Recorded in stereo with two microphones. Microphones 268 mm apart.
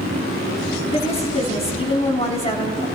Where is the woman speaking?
25° left (ahead or behind), 2.5 m.